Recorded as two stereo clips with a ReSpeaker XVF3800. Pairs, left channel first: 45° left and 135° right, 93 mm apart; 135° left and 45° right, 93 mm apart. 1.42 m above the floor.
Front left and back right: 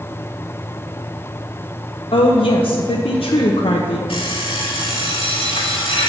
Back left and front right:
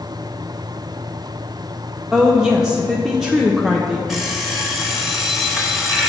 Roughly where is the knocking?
I don't hear knocking.